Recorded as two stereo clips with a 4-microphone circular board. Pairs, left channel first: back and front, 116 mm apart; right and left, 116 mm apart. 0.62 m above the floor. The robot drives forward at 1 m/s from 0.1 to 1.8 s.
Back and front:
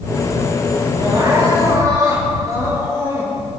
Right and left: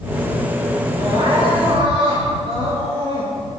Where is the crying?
50° left, 7.5 m; by 3.5 s 55° left, 7 m.